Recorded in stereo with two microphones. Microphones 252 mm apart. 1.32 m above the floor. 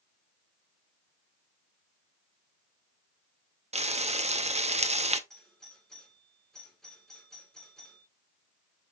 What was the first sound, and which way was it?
Frying, 25° right (ahead or behind).